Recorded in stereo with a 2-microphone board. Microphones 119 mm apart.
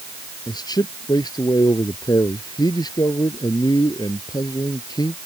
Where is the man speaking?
35° left (ahead or behind).